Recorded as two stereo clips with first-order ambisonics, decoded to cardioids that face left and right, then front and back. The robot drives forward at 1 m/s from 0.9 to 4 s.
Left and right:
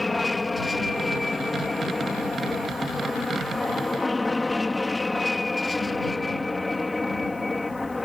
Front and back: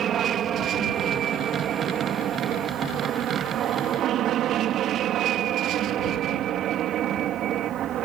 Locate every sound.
0.0 s an aircraft: 170° left